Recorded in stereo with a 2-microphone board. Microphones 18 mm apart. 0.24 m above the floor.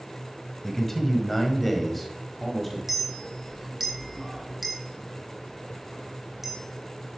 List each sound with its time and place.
0.6 s a man speaking: 15° left (ahead or behind), 1.3 m; by 2.8 s centre (ahead or behind), 1.2 m
2.9 s a clink: 15° right (ahead or behind), 1.2 m